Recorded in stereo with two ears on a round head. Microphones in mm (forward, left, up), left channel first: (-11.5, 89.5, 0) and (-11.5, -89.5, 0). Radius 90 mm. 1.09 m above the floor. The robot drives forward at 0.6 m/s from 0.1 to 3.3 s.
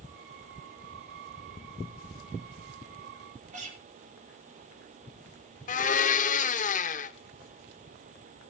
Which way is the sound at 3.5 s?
40° right (ahead or behind).